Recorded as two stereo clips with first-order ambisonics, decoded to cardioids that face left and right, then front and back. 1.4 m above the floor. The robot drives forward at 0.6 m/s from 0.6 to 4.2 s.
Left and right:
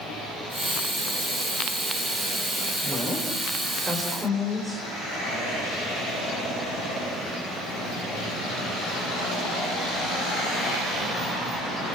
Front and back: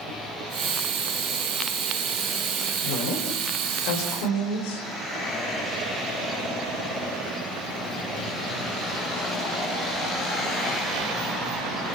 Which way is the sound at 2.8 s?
5° right.